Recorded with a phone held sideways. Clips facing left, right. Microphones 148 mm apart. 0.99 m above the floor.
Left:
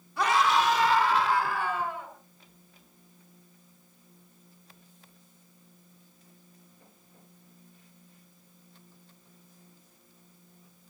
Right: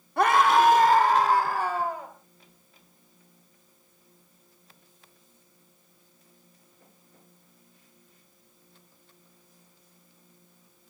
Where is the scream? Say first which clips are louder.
Right 5 dB; 55° right (ahead or behind), 2 m; by 2.1 s 40° right (ahead or behind), 4 m.